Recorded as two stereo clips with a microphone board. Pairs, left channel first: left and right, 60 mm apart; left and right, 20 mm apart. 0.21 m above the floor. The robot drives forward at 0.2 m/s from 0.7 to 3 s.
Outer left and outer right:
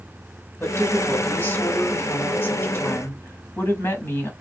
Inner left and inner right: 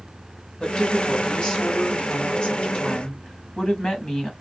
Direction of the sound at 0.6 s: 35° left (ahead or behind).